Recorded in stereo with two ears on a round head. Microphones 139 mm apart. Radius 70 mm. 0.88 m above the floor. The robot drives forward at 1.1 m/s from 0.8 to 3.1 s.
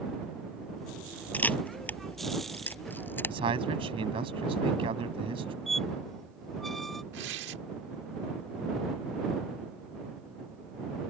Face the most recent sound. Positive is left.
turn(degrees=-85)